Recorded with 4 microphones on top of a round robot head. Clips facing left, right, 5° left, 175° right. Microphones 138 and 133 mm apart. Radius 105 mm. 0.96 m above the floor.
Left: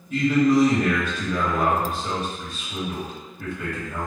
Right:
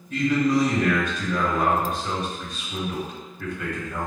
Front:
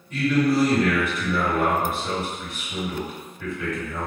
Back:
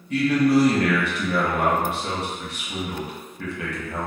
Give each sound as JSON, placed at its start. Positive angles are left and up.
{"t": 0.1, "sound": "a man speaking", "azimuth_deg": 170, "distance_m": 1.3}